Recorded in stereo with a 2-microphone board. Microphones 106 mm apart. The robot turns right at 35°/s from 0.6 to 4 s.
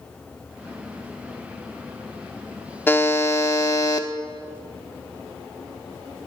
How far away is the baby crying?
I don't hear a baby crying.